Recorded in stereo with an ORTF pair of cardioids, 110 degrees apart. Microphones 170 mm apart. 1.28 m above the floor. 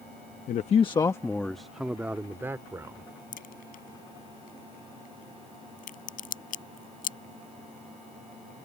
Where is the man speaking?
55° left; by 3.1 s 20° right.